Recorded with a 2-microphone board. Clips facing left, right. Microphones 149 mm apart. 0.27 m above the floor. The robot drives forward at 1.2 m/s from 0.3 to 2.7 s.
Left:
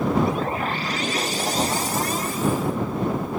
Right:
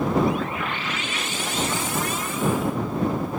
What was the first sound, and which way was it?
Only background noise.